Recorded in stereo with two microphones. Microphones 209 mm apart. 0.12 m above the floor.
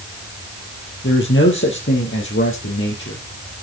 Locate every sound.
1.0 s a man speaking: 65° left (ahead or behind), 3.5 m; by 3.2 s 70° left (ahead or behind), 4.5 m